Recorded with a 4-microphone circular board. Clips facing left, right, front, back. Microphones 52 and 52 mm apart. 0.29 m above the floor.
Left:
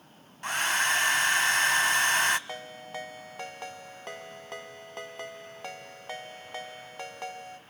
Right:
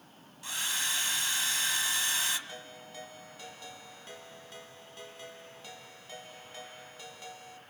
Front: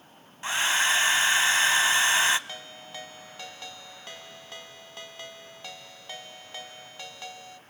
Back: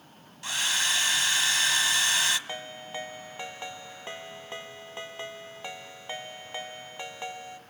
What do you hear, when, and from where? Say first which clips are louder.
0.4 s a hair dryer: left 9 dB, front 4 dB; 60° left, 0.5 m
2.5 s a ringtone: left 7 dB, back 4 dB; 115° left, 0.7 m